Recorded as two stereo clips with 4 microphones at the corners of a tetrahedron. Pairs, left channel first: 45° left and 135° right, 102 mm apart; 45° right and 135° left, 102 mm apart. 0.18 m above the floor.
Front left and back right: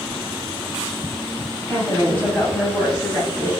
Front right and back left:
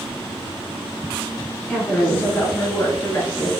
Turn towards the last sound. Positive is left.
turn(degrees=-30)